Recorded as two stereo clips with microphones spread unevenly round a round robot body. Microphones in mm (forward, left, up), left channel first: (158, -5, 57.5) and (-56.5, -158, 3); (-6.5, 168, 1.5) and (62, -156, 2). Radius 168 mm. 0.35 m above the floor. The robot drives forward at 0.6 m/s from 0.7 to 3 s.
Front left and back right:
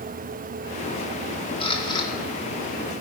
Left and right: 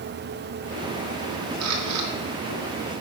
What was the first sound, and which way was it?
A camera shutter, 40° right.